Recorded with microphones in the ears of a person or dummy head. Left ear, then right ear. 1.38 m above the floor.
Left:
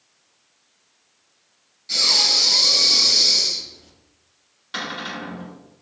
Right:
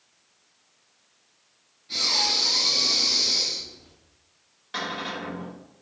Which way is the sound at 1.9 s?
65° left (ahead or behind).